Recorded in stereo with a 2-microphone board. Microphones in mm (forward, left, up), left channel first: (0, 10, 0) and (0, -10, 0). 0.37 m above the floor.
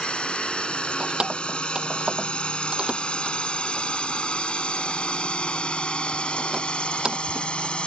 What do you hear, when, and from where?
0.0 s a drone: 60° left (ahead or behind)
1.0 s keys jangling: 45° right (ahead or behind)